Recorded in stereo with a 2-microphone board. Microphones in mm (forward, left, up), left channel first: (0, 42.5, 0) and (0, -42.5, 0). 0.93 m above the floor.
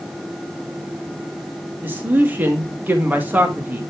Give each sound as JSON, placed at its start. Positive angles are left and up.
{"t": 1.8, "sound": "a man speaking", "side_deg": -20, "distance_m": 1.6}